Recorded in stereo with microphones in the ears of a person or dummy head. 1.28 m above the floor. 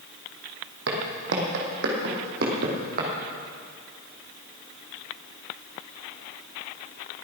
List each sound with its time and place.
0.9 s footsteps: 60° right (ahead or behind), 3.5 m; by 3.1 s 45° right (ahead or behind), 3.5 m